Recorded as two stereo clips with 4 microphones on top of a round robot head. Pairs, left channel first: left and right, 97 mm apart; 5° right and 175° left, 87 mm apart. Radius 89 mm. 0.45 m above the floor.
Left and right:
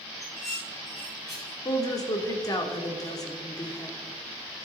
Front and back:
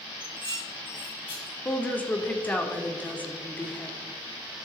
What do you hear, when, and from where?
0.2 s dishes clattering: 5° right, 4 m
1.6 s a woman speaking: 60° left, 1.6 m